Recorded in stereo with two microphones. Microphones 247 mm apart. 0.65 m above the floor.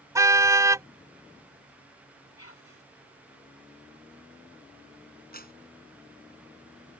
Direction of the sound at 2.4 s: 80° left.